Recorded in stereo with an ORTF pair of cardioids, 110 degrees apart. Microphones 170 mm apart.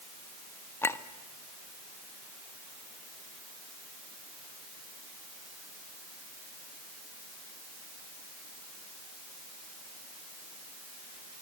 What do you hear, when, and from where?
0.8 s a clink: 15° left, 1.3 m